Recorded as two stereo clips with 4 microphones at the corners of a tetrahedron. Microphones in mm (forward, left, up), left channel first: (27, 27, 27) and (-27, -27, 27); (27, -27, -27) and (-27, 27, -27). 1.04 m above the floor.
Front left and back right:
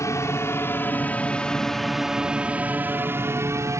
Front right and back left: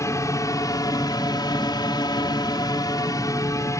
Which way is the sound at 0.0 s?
Straight ahead.